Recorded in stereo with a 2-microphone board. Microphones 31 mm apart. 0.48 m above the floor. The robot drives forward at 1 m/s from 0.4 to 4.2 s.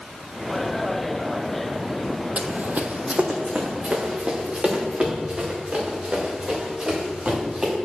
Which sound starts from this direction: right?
Running footsteps, at 2.4 s.